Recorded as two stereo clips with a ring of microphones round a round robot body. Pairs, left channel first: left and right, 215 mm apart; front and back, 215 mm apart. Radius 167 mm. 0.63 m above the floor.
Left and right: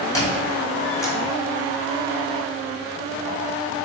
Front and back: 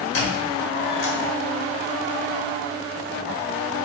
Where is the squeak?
15° left, 1.1 m.